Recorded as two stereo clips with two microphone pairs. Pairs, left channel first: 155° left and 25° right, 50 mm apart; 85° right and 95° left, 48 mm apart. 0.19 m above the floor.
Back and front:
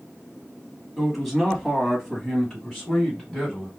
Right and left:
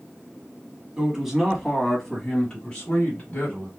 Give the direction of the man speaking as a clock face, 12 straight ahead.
10 o'clock.